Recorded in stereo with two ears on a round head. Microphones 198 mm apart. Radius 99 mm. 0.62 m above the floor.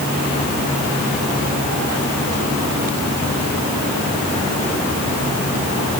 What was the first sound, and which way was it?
Only background noise.